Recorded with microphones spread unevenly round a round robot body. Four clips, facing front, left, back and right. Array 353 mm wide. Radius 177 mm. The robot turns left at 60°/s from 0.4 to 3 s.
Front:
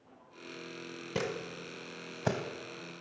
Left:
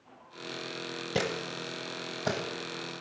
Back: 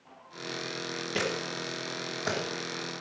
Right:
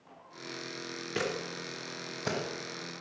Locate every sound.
1.1 s a camera shutter: 80° left, 1.1 m; by 2.4 s 5° left, 1.1 m